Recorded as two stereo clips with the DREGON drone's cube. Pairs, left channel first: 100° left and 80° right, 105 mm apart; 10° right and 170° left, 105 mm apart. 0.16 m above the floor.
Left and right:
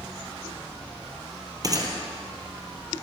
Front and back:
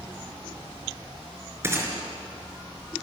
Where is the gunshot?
130° right, 4 m.